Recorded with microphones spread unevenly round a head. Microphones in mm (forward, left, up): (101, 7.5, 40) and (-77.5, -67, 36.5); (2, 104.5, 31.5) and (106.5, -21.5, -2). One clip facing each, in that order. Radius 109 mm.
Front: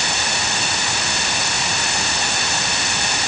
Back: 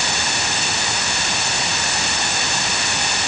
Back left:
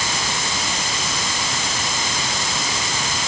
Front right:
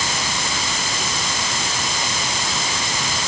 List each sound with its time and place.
Only background noise.